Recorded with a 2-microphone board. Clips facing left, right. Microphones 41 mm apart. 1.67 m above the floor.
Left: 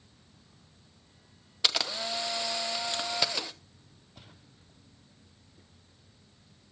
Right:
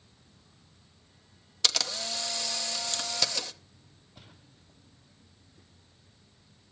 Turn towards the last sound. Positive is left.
turn(degrees=15)  # may be behind; listen again after turning